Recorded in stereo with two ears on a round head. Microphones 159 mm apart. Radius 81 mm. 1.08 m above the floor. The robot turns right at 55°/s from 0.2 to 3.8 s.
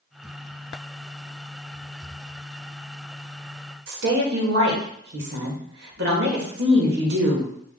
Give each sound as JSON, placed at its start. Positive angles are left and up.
{"t": 3.9, "sound": "a woman speaking", "side_deg": -70, "distance_m": 1.7}